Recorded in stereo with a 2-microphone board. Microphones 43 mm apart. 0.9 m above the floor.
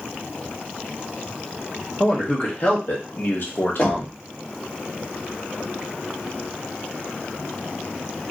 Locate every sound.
2.0 s a man speaking: 30° left (ahead or behind), 1.4 m; by 4.2 s 65° left (ahead or behind), 1.0 m
3.8 s knocking: 40° left (ahead or behind), 1.4 m